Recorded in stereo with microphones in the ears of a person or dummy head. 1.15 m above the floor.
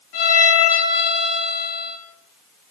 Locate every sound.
0.1 s a violin: 60° left (ahead or behind), 6 m